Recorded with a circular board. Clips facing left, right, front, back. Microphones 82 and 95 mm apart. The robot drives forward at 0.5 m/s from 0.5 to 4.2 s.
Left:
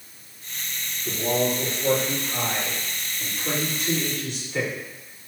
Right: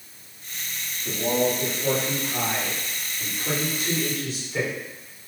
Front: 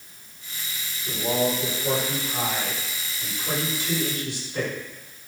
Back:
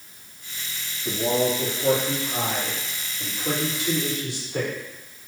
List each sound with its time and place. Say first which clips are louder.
1.1 s a man speaking: right 1 dB, back 2 dB; 175° right, 3.5 m